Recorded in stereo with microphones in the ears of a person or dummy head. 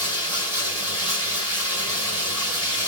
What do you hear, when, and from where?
0.0 s running water: 20° left (ahead or behind), 1.6 m